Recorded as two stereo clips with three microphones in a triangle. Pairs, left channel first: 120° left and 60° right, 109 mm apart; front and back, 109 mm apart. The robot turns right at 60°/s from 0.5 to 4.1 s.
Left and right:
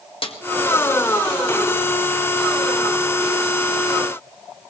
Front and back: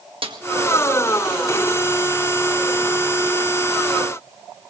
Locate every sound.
0.2 s a snare drum: 150° left, 1.7 m